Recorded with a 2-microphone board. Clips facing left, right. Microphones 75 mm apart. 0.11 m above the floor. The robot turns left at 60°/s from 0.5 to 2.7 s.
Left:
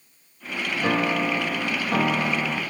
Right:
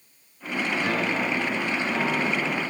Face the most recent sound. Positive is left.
turn(degrees=35)